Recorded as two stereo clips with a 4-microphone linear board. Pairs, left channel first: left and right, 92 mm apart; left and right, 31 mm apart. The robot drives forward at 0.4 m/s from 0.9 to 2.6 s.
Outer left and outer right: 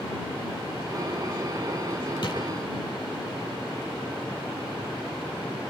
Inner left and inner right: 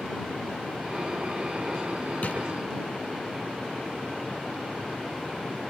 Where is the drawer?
60° left (ahead or behind), 6.5 m.